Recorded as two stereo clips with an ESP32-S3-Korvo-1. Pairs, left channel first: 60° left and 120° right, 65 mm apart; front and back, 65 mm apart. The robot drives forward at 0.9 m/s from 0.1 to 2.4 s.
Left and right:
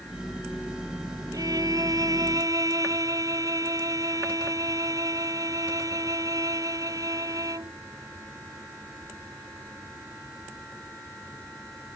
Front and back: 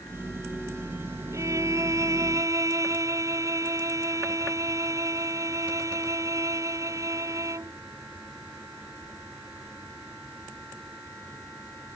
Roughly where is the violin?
Behind right.